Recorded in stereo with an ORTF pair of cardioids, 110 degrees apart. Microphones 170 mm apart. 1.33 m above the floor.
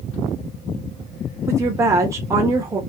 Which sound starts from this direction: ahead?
A woman speaking, at 1.5 s.